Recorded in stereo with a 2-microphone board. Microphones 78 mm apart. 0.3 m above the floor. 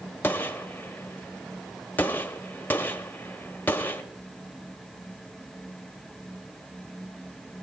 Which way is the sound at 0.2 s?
25° left (ahead or behind).